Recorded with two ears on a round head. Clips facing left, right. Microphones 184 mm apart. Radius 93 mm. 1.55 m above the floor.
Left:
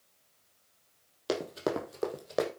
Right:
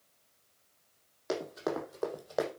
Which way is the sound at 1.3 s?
45° left (ahead or behind).